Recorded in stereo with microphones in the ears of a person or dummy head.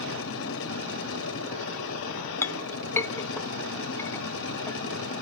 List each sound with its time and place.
0.0 s a machine running: 75° left (ahead or behind), 2.5 m
2.4 s a clink: 15° left (ahead or behind), 0.5 m